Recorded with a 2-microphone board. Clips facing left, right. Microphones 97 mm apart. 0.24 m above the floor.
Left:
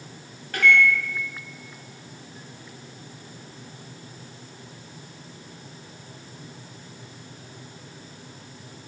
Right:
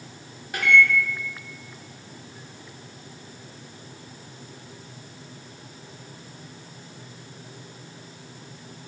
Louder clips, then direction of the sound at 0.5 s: Even; 15° right (ahead or behind).